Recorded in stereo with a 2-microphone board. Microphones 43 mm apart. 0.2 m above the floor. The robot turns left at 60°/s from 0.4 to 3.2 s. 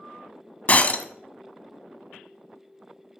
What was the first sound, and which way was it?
Breaking glass, 35° left (ahead or behind).